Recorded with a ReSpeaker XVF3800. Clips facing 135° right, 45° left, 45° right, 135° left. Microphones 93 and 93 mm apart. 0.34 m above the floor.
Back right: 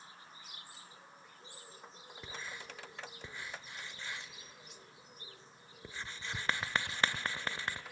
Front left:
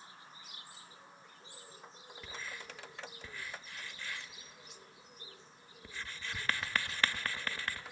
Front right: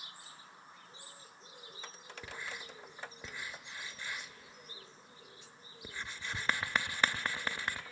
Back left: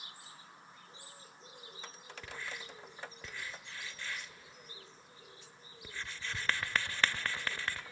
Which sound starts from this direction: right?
Writing, at 2.2 s.